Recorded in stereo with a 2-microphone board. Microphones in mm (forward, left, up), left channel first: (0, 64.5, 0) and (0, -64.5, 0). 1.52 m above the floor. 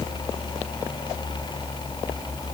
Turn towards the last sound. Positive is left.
No sound to turn to.